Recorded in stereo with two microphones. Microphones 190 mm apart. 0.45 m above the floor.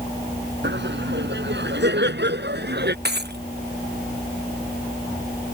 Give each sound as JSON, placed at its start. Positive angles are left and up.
{"t": 0.6, "sound": "laughter", "side_deg": -75}
{"t": 3.0, "sound": "breaking glass", "side_deg": -65}